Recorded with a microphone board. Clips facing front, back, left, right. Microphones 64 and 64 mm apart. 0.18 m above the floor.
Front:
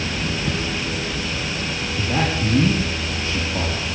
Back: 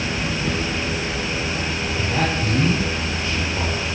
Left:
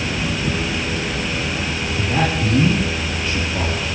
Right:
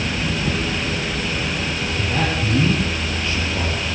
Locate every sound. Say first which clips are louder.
1.9 s a man speaking: front 1 dB, left 3 dB; 30° left, 6 m